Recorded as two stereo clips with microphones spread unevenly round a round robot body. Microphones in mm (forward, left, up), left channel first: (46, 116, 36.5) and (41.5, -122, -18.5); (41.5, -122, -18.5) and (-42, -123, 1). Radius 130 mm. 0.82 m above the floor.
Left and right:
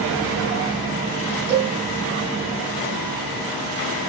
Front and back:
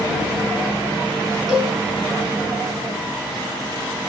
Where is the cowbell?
90° right, 5.5 m.